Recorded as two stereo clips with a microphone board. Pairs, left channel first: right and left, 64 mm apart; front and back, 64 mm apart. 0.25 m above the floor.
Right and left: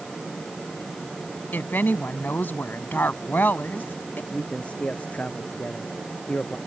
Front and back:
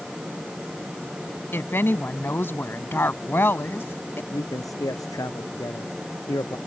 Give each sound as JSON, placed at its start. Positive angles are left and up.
{"t": 1.5, "sound": "a woman speaking", "azimuth_deg": -40}
{"t": 4.3, "sound": "a man speaking", "azimuth_deg": -20}